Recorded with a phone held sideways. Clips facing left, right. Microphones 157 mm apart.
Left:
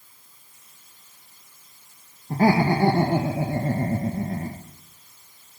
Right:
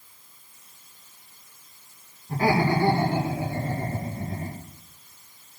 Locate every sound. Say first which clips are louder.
2.3 s laughter: left 3 dB; 45° left (ahead or behind), 1.8 m; by 4.6 s 65° left (ahead or behind), 1.4 m